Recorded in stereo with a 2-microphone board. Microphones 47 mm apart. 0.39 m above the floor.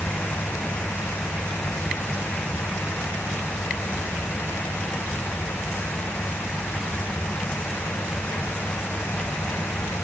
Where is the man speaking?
I don't hear a man speaking.